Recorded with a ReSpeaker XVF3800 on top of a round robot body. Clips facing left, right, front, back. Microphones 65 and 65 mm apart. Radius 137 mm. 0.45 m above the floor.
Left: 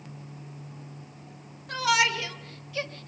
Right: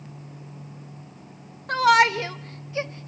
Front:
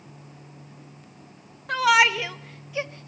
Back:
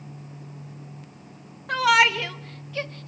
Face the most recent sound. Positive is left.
turn(degrees=-40)